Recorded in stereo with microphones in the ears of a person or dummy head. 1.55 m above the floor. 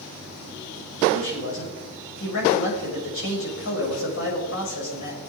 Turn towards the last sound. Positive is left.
turn(degrees=75)  # may be behind; listen again after turning